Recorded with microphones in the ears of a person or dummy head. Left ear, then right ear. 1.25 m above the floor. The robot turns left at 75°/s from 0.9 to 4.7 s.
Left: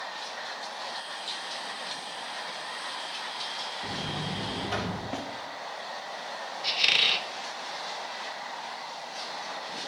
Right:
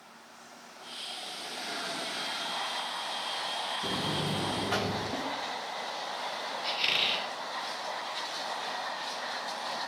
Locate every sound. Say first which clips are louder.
3.8 s a buzzer: right 2 dB; 115° right, 2.5 m; by 5.0 s straight behind, 2.5 m
5.1 s a snare drum: right 1 dB; 25° left (ahead or behind), 1.4 m
6.6 s a squeak: left 5 dB; 20° left (ahead or behind), 0.8 m